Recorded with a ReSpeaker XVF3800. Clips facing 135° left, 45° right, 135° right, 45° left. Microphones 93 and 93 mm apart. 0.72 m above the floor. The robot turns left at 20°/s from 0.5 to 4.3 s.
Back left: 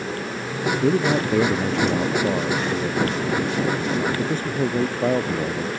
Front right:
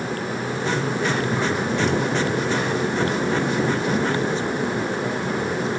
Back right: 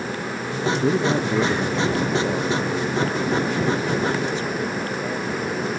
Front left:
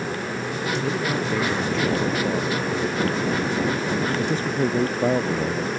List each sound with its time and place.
0.8 s a man speaking: 165° left; by 5.7 s 95° left